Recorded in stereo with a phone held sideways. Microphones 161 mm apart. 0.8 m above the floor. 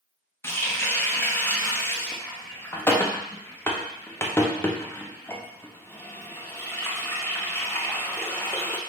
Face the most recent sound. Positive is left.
turn(degrees=15)  # may be behind; listen again after turning